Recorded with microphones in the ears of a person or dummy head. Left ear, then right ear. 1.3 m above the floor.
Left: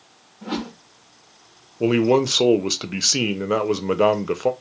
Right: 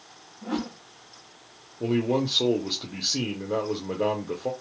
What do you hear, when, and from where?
0.4 s a whoosh: 45° left (ahead or behind), 0.8 m
1.8 s a man speaking: 65° left (ahead or behind), 0.5 m